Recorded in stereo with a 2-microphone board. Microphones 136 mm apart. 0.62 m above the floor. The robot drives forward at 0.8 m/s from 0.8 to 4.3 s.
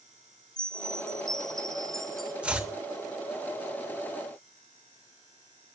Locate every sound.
0.6 s a chime: 5° left (ahead or behind), 0.5 m; by 2.3 s centre (ahead or behind), 1.6 m
2.4 s chopping: 10° right (ahead or behind), 2.5 m